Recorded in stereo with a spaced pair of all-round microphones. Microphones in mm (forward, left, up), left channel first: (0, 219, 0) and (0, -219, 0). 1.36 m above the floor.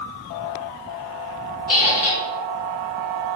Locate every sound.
1.7 s a squeak: 35° left (ahead or behind), 0.6 m